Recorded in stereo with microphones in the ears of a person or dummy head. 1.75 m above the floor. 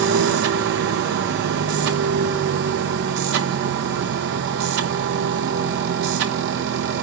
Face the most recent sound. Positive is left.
turn(degrees=-55)  # may be behind; listen again after turning